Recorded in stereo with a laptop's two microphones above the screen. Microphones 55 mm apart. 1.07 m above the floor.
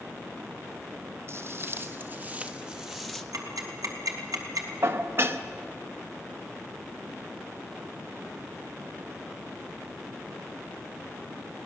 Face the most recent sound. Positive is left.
turn(degrees=-45)  # may be behind; listen again after turning